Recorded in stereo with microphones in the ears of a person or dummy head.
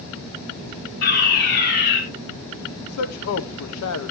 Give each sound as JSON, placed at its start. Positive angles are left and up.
{"t": 1.0, "sound": "a fire alarm", "side_deg": 50, "distance_m": 5.5}
{"t": 2.8, "sound": "a man speaking", "side_deg": 85, "distance_m": 1.0}